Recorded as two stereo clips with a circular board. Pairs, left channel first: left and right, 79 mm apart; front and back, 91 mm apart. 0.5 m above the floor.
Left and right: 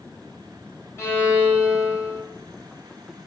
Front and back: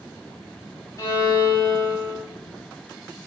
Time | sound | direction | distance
1.0 | a violin | 45° left | 1.9 m